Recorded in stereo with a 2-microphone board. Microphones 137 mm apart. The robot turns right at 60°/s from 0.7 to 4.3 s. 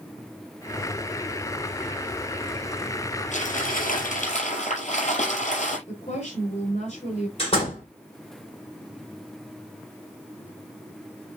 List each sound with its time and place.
3.3 s crumpling: 65° left, 9 m; by 5.8 s 120° left, 9 m
5.9 s a woman speaking: 50° left (ahead or behind), 7.5 m
7.4 s a door slam: 45° left (ahead or behind), 8.5 m